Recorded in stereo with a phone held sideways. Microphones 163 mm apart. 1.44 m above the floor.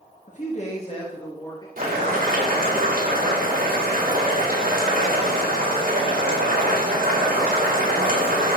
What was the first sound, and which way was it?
A man speaking, 50° left (ahead or behind).